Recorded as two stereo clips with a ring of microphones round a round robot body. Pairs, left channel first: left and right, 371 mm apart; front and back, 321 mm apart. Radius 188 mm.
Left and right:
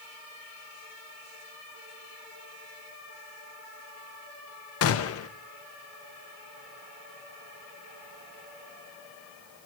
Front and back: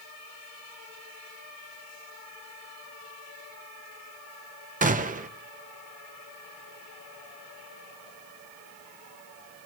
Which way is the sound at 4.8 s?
125° left.